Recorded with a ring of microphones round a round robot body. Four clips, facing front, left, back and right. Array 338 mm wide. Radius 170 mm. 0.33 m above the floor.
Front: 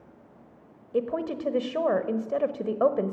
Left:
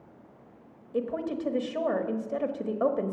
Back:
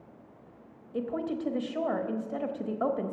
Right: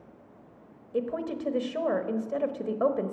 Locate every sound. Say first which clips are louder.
0.9 s a woman speaking: even, front 4 dB; 5° right, 1.3 m